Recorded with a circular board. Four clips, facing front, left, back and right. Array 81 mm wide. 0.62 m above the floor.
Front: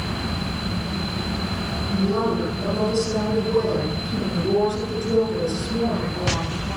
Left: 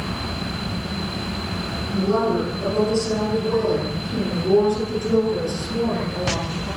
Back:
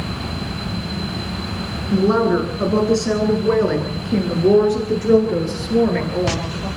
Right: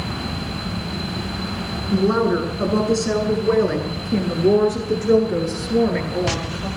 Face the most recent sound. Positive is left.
turn(degrees=-140)